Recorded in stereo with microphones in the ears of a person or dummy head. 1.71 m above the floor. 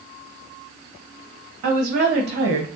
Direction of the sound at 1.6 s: 50° right (ahead or behind).